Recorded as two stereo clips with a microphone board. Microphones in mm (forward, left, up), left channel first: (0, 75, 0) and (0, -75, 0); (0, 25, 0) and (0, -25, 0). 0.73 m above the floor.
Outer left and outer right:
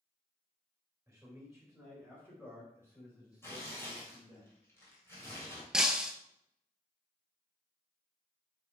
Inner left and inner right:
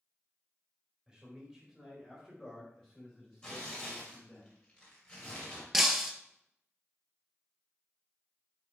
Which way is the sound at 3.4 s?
15° left (ahead or behind).